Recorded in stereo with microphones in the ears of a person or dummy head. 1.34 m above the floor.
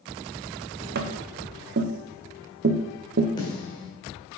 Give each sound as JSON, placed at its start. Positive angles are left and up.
{"t": 0.9, "sound": "tapping", "side_deg": -45, "distance_m": 0.6}
{"t": 3.4, "sound": "a snare drum", "side_deg": 25, "distance_m": 2.0}